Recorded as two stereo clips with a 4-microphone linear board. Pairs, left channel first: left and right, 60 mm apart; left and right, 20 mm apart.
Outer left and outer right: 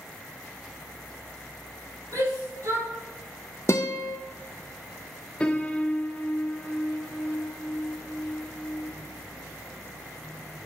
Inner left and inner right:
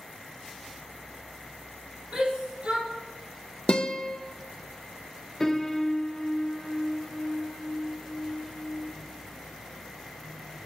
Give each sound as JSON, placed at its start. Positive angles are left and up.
{"t": 2.1, "sound": "a shout", "side_deg": -60, "distance_m": 5.0}
{"t": 3.7, "sound": "a guitar", "side_deg": 50, "distance_m": 1.0}
{"t": 5.4, "sound": "a piano", "side_deg": 20, "distance_m": 0.8}